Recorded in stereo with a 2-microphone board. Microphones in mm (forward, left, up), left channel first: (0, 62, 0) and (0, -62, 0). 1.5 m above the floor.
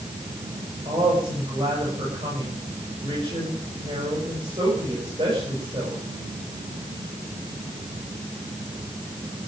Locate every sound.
0.8 s a woman speaking: 45° right (ahead or behind), 7.5 m